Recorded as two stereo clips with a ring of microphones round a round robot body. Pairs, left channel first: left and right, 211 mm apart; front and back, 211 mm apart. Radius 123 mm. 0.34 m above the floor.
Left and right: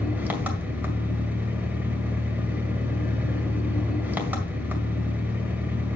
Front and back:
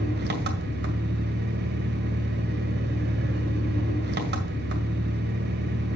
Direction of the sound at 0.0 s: 170° right.